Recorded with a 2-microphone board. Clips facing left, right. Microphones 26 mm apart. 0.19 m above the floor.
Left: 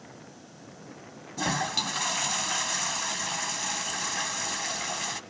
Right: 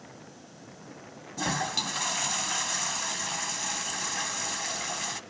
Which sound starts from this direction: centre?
A toilet flushing, at 1.4 s.